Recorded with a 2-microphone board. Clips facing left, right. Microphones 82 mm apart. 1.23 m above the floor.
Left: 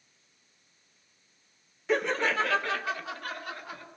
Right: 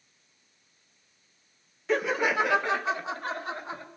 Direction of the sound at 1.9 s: Centre (ahead or behind).